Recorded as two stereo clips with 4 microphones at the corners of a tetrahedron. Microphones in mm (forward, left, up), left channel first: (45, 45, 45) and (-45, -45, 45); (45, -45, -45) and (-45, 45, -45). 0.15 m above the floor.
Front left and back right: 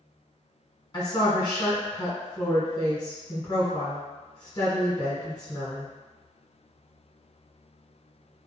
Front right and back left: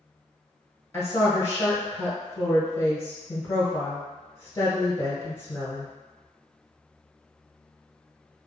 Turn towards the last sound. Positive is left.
turn(degrees=10)